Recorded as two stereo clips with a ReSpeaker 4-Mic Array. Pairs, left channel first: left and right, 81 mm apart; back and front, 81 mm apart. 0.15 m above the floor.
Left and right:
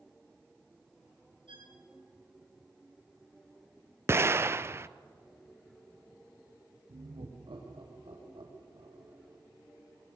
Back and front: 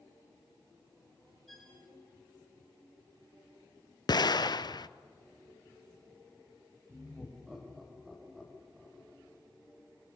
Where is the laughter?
85° right, 6 m.